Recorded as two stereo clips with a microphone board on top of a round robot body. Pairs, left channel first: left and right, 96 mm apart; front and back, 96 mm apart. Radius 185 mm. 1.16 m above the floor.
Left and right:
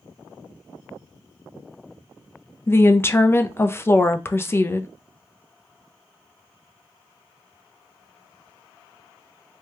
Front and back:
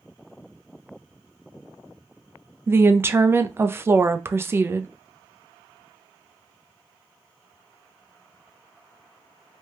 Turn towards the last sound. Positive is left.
turn(degrees=135)